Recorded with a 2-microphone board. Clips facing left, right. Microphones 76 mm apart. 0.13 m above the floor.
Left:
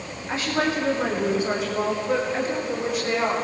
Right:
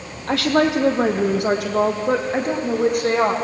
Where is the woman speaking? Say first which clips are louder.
Right 7 dB; 70° right (ahead or behind), 4.5 m; by 3.3 s 55° right (ahead or behind), 8 m.